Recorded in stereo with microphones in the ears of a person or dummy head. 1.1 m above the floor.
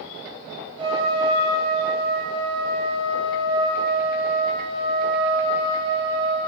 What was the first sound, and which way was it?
A trumpet, 25° right (ahead or behind).